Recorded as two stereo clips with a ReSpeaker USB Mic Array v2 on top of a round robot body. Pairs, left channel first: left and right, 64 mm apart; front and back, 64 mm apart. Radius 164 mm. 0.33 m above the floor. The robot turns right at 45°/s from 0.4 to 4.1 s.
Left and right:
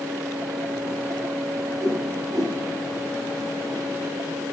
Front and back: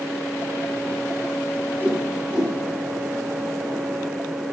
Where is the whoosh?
125° right, 4 m; by 2.5 s 90° right, 4 m.